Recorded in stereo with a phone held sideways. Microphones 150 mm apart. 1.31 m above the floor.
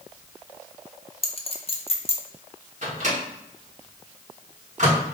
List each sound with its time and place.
1.2 s a clink: 40° left (ahead or behind), 0.6 m
2.8 s a microwave: 55° right (ahead or behind), 1.3 m